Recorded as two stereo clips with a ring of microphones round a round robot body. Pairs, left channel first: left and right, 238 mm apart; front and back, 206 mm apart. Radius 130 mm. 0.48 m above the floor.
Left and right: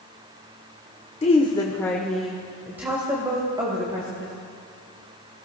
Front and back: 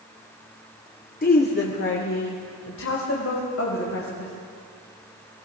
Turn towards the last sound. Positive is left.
turn(degrees=-20)